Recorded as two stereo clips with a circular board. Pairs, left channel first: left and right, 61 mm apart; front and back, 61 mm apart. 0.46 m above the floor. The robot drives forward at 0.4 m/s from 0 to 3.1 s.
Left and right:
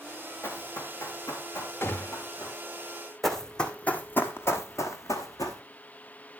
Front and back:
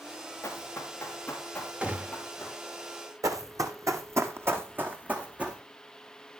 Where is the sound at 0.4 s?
45° left, 2.5 m; by 2.6 s 75° left, 4 m.